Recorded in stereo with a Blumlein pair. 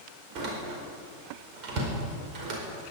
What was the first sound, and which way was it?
A door slam, 40° right.